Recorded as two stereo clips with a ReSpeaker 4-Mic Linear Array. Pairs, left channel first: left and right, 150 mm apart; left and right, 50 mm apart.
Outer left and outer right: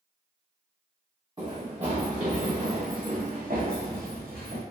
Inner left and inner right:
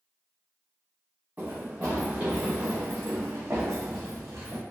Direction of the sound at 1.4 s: 35° right (ahead or behind).